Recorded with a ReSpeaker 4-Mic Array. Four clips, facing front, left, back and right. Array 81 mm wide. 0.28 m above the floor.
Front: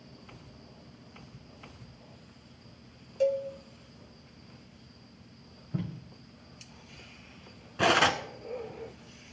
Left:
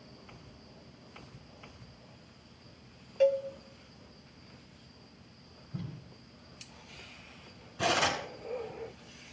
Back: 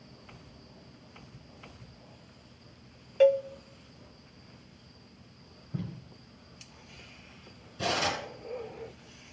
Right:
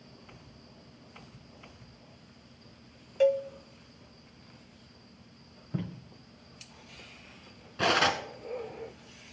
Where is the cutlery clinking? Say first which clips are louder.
Right 3 dB, front 6 dB; 25° right, 1.7 m.